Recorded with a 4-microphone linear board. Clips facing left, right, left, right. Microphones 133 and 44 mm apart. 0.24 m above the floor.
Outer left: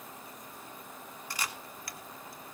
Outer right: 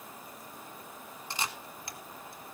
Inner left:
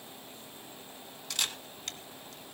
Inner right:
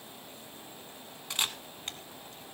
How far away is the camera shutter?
About 1.4 m.